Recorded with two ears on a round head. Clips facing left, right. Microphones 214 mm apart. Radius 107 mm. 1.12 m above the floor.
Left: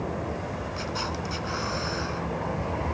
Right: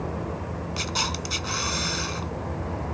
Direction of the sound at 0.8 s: 50° right (ahead or behind).